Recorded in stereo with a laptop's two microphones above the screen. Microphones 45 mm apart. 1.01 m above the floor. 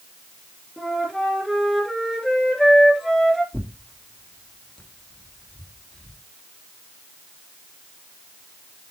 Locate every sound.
0.8 s a flute: centre (ahead or behind), 2.5 m
3.5 s tearing paper: 15° left (ahead or behind), 2 m